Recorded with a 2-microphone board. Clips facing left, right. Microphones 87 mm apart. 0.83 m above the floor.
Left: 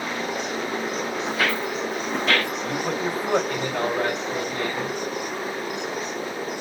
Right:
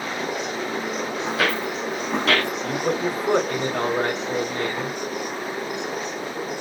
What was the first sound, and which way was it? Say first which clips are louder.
Footsteps: right 2 dB; 70° right (ahead or behind).